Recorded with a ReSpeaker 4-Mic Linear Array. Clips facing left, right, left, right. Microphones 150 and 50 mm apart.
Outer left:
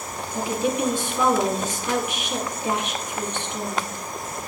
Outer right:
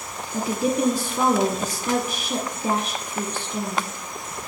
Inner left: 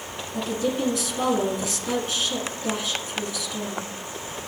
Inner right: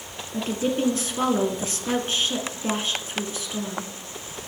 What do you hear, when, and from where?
0.3 s a woman speaking: 40° right (ahead or behind), 1.4 m